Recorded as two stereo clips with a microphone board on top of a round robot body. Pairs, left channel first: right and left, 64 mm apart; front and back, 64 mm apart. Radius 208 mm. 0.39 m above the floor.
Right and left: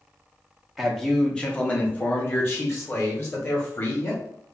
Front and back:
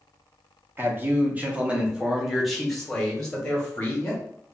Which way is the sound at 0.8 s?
Straight behind.